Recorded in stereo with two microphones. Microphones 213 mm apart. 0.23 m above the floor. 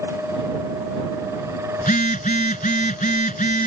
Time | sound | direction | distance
1.8 | a phone buzzing | 40° left (ahead or behind) | ?